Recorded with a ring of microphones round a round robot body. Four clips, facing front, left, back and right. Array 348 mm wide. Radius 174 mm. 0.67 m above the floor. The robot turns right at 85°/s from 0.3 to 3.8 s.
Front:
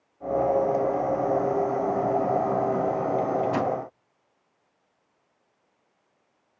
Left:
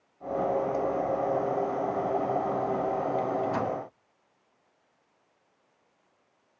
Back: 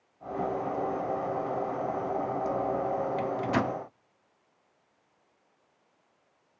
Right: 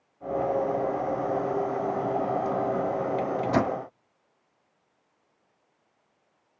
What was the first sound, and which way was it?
A microwave, 135° right.